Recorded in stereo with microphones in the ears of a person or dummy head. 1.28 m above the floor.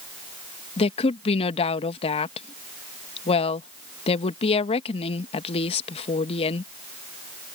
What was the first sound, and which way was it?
A woman speaking, 30° left (ahead or behind).